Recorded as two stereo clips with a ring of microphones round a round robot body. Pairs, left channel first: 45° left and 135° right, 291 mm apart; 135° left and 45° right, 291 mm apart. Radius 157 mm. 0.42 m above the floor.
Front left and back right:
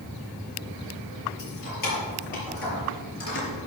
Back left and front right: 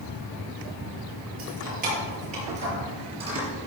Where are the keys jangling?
15° left, 6 m; by 3.5 s 30° left, 5.5 m.